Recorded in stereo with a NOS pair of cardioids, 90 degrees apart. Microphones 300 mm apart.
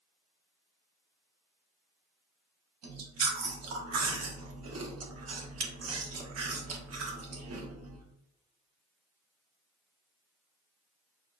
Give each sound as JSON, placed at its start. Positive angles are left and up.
{"t": 2.8, "sound": "chewing", "azimuth_deg": -55, "distance_m": 1.4}